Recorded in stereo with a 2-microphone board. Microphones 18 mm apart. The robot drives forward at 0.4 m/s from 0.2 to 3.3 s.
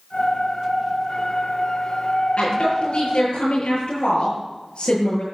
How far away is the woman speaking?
About 7.5 m.